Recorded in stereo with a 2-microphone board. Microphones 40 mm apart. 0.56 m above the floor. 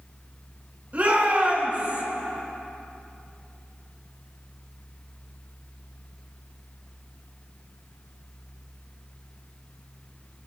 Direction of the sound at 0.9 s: 40° right (ahead or behind).